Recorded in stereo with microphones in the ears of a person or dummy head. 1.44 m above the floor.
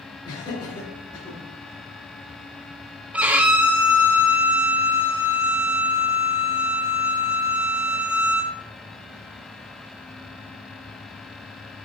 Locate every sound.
0.2 s laughter: 25° left (ahead or behind), 3.5 m; by 1.4 s 30° left (ahead or behind), 2.5 m
3.1 s a violin: 10° right (ahead or behind), 0.5 m